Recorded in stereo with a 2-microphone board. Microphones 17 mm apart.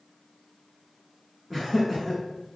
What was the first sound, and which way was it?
Laughter, 15° left (ahead or behind).